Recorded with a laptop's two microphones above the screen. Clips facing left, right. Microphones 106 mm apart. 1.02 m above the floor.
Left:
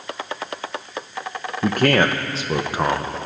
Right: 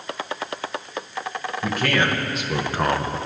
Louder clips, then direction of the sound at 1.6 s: Left 6 dB; 50° left (ahead or behind).